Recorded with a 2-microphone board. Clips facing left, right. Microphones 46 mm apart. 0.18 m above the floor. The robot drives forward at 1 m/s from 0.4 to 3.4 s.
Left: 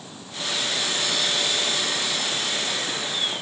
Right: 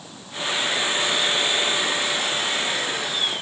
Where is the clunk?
I don't hear a clunk.